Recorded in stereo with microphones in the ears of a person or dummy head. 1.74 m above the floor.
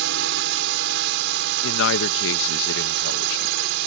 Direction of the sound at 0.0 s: 65° right (ahead or behind).